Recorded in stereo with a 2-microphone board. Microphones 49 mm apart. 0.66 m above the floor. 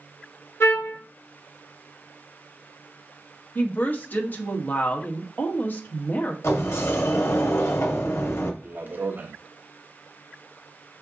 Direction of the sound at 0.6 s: 60° left (ahead or behind).